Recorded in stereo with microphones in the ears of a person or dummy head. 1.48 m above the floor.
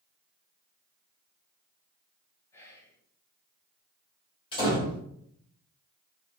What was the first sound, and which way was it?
Whispering, 15° left (ahead or behind).